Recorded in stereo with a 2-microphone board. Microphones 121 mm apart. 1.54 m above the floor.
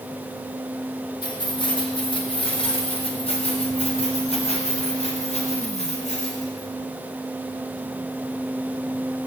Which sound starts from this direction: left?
Keys jangling, at 1.2 s.